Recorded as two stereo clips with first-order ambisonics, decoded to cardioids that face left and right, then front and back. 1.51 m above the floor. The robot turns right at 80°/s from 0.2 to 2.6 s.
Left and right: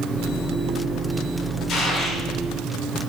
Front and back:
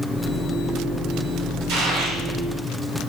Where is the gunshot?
145° left, 1.0 m; by 2.2 s 170° right, 1.0 m.